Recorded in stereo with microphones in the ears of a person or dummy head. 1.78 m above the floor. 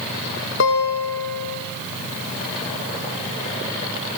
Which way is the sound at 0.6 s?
65° left (ahead or behind).